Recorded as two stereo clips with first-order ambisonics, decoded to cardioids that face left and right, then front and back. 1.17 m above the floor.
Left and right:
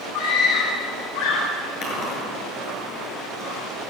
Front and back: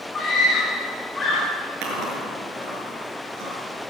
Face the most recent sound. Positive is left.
turn(degrees=145)